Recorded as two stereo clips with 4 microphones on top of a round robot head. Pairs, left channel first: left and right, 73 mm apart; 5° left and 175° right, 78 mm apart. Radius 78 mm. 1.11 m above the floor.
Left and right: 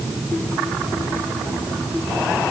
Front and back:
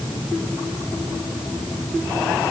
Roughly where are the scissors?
I don't hear scissors.